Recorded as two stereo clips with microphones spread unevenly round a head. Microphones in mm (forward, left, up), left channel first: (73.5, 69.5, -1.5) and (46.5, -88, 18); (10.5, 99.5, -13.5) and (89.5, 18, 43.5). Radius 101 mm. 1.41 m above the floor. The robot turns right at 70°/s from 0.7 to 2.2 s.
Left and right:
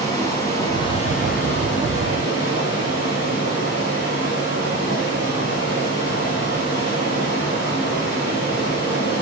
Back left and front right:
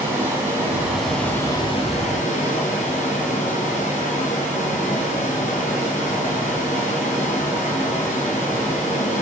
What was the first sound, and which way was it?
Running water, 10° left.